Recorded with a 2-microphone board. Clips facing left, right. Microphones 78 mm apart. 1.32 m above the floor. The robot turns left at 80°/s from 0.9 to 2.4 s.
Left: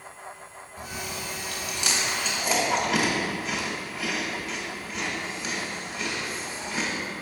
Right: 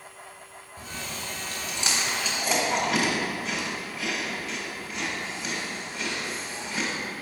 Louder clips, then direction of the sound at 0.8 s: Left 2 dB; 30° right (ahead or behind).